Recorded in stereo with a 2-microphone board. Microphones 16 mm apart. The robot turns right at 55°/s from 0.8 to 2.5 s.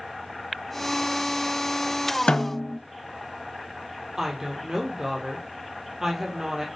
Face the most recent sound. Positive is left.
turn(degrees=-20)  # may be behind; listen again after turning